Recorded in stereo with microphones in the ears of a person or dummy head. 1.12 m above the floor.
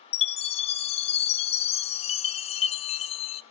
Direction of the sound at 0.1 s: 30° left (ahead or behind).